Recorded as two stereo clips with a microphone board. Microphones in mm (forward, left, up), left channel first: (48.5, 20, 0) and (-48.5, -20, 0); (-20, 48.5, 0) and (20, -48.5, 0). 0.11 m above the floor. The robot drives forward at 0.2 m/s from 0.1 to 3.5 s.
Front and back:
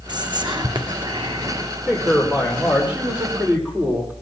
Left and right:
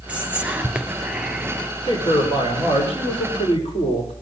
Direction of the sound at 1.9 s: 125° left.